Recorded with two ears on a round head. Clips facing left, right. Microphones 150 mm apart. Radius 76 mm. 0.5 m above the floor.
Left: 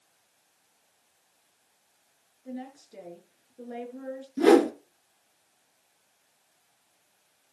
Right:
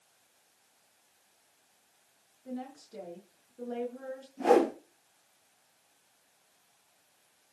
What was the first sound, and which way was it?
A woman speaking, 5° left (ahead or behind).